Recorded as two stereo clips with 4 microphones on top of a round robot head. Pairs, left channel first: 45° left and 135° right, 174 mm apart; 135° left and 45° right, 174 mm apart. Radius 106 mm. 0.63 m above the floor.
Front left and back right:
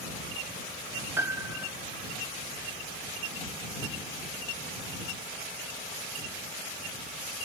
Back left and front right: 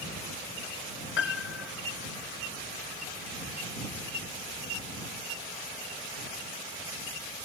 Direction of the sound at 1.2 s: 150° left.